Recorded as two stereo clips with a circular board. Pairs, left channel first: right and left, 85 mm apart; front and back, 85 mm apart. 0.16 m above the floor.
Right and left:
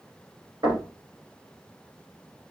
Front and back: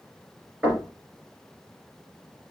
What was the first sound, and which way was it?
Knocking, 105° left.